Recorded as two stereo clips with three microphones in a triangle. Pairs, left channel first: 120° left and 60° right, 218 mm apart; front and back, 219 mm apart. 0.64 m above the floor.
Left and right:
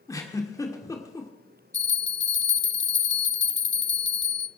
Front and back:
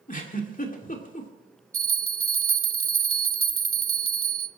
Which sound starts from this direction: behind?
A bell, at 1.7 s.